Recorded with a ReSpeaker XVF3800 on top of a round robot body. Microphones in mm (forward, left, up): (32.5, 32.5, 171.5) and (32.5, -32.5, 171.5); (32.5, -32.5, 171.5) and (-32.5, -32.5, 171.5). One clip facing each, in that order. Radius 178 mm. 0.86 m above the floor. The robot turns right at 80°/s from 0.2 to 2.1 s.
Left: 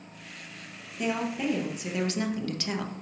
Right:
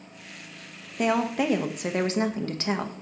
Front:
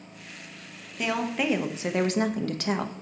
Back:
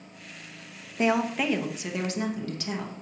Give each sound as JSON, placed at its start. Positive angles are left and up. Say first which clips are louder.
{"t": 1.0, "sound": "a woman speaking", "louder": "right 5 dB, back 3 dB", "azimuth_deg": -120, "distance_m": 0.9}